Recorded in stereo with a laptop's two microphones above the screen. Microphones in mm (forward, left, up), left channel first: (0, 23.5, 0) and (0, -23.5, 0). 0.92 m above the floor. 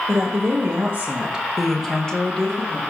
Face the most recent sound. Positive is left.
turn(degrees=30)  # may be behind; listen again after turning